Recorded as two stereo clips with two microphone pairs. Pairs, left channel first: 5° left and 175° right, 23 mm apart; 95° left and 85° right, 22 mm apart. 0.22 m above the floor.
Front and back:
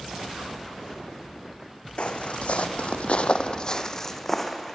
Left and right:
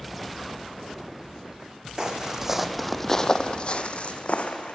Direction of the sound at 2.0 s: 25° right.